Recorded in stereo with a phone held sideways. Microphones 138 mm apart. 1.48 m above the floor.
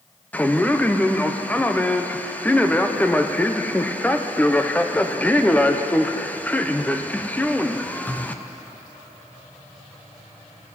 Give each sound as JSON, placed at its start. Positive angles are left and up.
{"t": 0.3, "sound": "a man speaking", "side_deg": 10, "distance_m": 0.8}